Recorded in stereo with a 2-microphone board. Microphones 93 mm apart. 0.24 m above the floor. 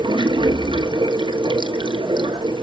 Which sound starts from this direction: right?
Running water, at 0.0 s.